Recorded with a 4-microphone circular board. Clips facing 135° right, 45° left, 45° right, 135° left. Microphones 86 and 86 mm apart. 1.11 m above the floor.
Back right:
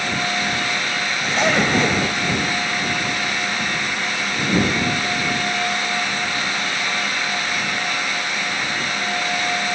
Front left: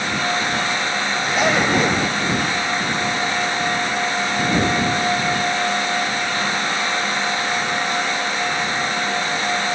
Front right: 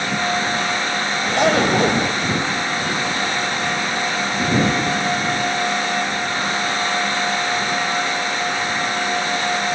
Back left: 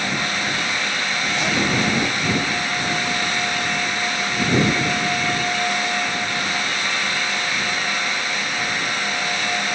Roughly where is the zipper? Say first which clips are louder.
Even, front right 7 dB; ahead right.